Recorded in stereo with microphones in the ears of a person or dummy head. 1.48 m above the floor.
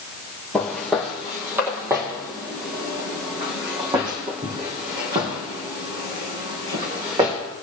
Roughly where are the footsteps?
Centre.